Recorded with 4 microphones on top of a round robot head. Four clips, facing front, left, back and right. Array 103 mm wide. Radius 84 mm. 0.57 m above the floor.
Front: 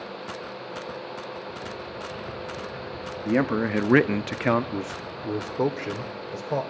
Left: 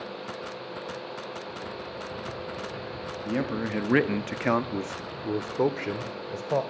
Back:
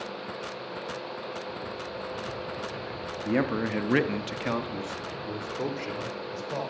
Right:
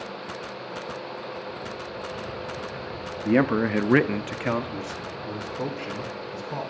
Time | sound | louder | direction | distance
3.2 | a man speaking | right 8 dB, front 4 dB | 80° right | 1.3 m